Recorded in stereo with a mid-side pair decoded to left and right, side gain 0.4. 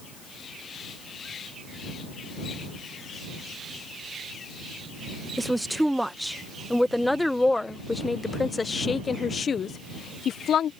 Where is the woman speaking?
10° right; by 10.7 s 70° left.